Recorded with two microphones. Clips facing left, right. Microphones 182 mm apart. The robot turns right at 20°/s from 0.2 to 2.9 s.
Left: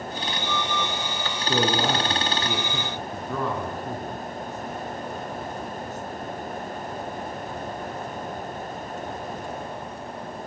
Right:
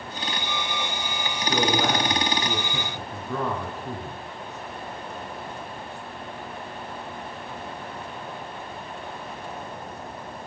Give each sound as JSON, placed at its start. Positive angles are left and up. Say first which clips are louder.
{"t": 1.4, "sound": "a man speaking", "louder": "even", "side_deg": 30, "distance_m": 4.0}